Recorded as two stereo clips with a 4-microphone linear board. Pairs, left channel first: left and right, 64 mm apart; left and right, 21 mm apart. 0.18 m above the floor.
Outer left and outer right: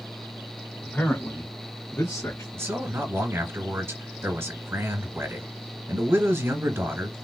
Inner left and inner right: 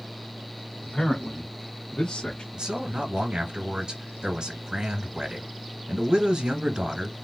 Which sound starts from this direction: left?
A man speaking, at 0.8 s.